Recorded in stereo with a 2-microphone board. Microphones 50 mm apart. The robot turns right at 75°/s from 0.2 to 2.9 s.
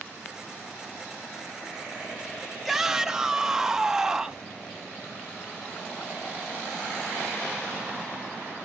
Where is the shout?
Centre (ahead or behind), 1.1 m; by 4.5 s 10° right (ahead or behind), 1.1 m.